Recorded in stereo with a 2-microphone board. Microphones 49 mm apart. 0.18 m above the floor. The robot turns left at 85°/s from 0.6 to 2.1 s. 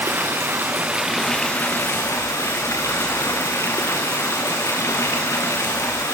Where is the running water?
130° right, 3.5 m; by 6.1 s 105° left, 3.5 m.